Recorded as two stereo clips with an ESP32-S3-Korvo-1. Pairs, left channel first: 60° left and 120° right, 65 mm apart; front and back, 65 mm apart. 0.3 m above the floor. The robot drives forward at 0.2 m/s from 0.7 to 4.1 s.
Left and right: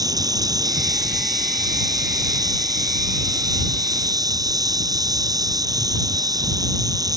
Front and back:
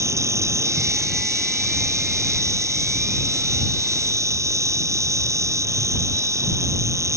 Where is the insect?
140° right.